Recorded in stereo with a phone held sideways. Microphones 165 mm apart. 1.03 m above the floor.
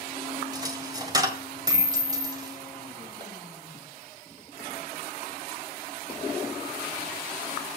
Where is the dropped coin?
25° right (ahead or behind), 1.7 m.